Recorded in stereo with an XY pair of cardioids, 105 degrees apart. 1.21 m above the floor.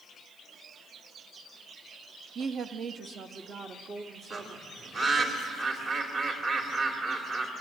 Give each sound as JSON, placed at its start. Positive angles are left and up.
{"t": 2.4, "sound": "a woman speaking", "azimuth_deg": -60, "distance_m": 1.1}
{"t": 4.3, "sound": "a bird", "azimuth_deg": -55, "distance_m": 3.0}